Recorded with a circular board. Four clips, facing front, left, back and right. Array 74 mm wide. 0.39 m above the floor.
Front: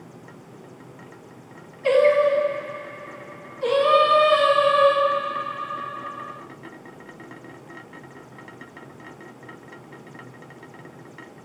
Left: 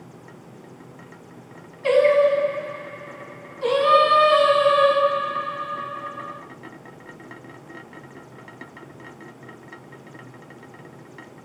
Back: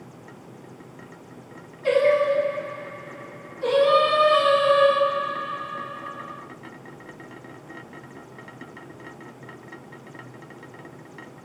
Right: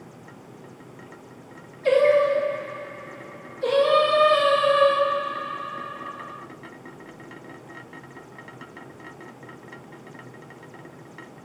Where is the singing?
65° left, 1.4 m.